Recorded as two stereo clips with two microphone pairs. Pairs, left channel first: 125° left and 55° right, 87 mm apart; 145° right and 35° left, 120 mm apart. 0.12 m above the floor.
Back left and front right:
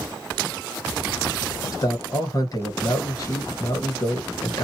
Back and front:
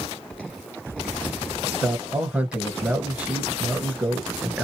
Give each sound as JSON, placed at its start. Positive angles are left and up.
{"t": 1.7, "sound": "a man speaking", "azimuth_deg": 110, "distance_m": 1.8}